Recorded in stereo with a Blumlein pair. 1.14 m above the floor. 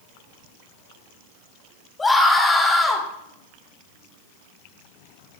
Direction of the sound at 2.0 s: 10° left.